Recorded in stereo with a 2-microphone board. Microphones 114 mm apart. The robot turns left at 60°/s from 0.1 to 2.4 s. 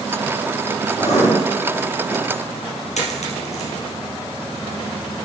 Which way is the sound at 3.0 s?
85° left.